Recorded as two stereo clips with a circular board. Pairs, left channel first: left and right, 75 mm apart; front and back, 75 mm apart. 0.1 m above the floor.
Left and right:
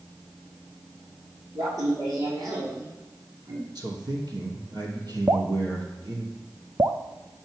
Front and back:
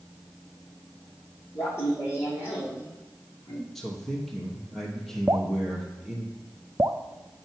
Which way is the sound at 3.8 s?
85° right.